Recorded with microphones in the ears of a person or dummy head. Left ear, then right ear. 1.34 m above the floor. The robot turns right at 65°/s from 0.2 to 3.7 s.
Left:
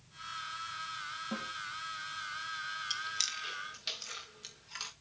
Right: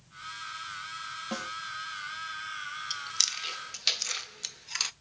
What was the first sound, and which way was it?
A snare drum, 85° right.